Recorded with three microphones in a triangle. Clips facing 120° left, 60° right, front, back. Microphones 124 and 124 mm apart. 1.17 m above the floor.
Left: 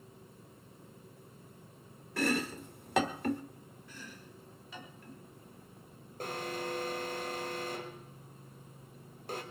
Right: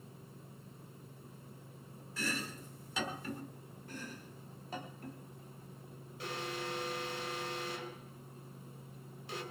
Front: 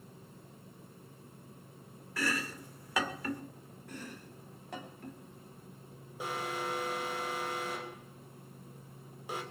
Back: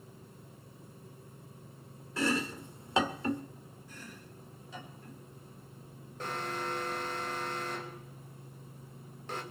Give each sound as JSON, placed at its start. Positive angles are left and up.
{"t": 2.2, "sound": "chopping", "azimuth_deg": 120, "distance_m": 1.5}
{"t": 3.9, "sound": "chopping", "azimuth_deg": -15, "distance_m": 3.0}
{"t": 6.2, "sound": "an alarm", "azimuth_deg": 80, "distance_m": 3.5}